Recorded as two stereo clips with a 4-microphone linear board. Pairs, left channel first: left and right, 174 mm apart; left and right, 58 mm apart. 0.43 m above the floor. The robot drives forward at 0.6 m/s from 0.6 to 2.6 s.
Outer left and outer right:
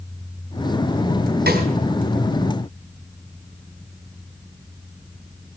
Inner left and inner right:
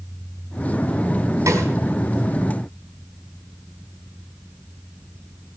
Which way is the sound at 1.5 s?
65° right (ahead or behind).